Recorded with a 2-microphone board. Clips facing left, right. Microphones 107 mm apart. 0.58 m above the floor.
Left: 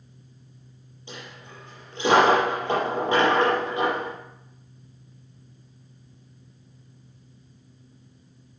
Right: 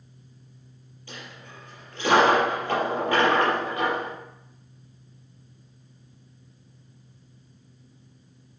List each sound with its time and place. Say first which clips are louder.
1.1 s a dropped coin: left 1 dB; 20° left (ahead or behind), 6 m